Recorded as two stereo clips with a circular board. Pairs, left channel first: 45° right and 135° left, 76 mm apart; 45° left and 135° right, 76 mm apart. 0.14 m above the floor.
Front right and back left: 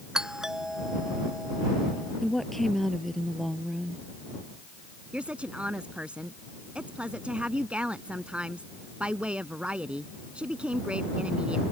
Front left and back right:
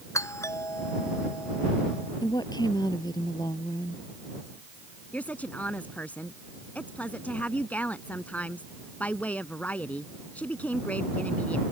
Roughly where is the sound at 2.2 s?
Ahead left.